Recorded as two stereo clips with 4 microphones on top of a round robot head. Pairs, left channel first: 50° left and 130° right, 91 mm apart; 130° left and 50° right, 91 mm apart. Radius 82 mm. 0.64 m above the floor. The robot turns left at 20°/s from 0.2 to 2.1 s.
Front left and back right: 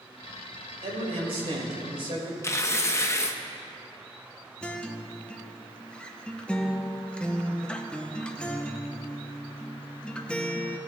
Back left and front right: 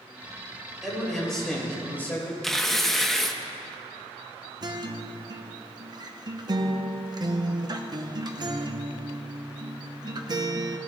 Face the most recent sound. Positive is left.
turn(degrees=-25)